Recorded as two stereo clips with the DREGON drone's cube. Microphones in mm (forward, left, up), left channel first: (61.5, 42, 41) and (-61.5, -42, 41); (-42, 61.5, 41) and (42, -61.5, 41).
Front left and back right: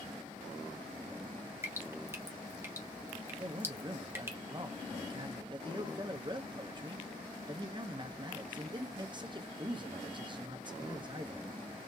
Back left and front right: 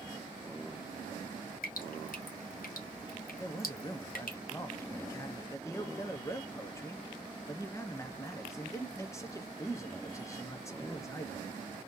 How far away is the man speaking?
About 0.7 m.